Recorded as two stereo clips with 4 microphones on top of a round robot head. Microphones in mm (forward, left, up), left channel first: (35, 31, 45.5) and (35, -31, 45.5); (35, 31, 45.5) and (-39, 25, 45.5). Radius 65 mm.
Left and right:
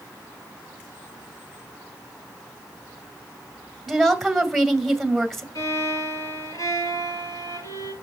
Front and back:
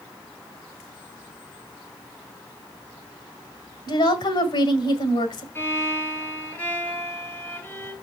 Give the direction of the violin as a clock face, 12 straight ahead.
10 o'clock.